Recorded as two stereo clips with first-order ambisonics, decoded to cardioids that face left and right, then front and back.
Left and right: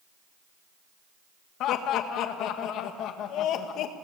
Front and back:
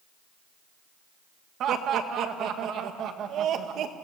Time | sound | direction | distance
1.6 | laughter | 130° left | 1.7 m